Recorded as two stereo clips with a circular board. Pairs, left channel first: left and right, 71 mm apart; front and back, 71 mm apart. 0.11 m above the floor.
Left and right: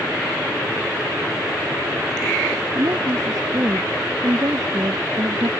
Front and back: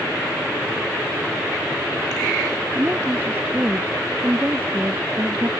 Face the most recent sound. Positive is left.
turn(degrees=-120)